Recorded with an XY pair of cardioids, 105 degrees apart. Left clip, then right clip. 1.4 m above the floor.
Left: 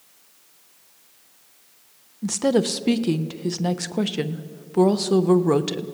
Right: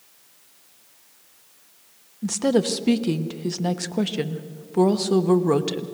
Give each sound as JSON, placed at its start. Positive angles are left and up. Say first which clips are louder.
{"t": 2.2, "sound": "a woman speaking", "louder": "left 1 dB", "azimuth_deg": 10, "distance_m": 1.1}